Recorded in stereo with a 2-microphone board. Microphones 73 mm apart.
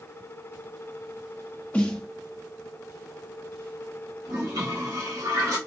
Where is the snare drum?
15° left (ahead or behind), 0.8 m.